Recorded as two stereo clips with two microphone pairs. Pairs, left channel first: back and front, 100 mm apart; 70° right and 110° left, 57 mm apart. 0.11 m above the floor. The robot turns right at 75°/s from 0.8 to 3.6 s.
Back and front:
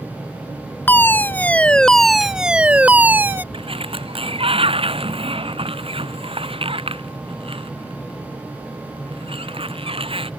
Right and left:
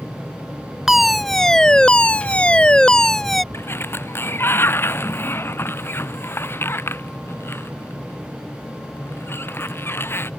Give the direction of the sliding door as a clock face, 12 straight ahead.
1 o'clock.